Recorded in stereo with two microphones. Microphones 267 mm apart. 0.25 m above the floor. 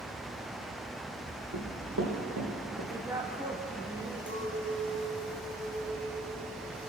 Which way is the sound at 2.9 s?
10° right (ahead or behind).